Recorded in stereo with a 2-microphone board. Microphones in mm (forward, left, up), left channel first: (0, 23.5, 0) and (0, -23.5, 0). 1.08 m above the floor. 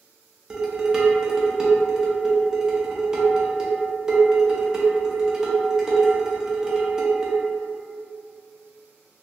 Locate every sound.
0.5 s dishes clattering: 15° right (ahead or behind), 0.6 m